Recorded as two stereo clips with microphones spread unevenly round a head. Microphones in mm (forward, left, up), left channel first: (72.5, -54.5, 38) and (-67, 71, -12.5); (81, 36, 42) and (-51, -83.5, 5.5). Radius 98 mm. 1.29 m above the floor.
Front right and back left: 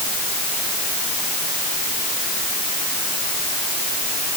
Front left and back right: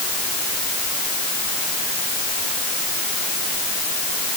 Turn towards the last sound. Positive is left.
No sound to turn to.